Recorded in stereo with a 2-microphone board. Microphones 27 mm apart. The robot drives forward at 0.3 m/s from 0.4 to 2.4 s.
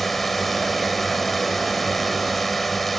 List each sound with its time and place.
0.0 s a drone: 5° left (ahead or behind)